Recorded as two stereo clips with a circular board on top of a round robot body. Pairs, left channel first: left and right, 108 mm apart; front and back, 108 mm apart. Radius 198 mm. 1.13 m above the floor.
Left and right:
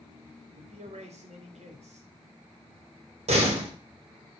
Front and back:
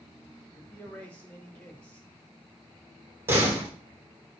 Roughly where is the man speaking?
Right.